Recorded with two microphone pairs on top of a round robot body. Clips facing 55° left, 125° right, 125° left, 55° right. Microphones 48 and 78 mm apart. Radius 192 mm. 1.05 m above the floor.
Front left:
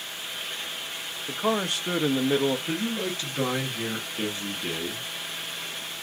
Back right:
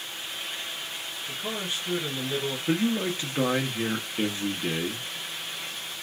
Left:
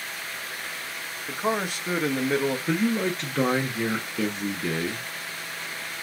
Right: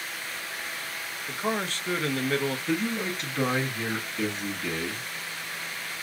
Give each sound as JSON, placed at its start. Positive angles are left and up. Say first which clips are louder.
{"t": 1.3, "sound": "a man speaking", "louder": "front left 8 dB, left 3 dB", "azimuth_deg": 50, "distance_m": 0.8}
{"t": 2.7, "sound": "a man speaking", "louder": "back right 3 dB, left 4 dB", "azimuth_deg": 175, "distance_m": 1.0}